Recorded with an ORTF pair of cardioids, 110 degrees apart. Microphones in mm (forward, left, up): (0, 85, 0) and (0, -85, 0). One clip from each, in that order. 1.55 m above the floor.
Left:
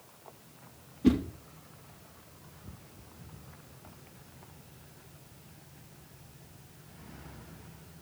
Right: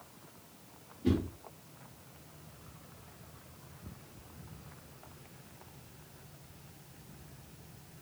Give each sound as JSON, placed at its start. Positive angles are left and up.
{"t": 1.0, "sound": "a whoosh", "azimuth_deg": 50, "distance_m": 3.5}